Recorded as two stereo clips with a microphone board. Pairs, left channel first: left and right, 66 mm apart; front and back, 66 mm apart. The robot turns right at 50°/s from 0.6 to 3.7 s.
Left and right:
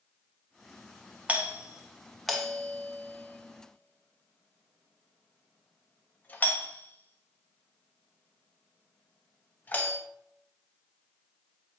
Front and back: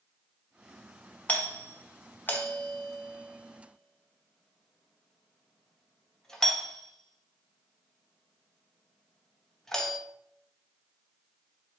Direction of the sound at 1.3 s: 45° right.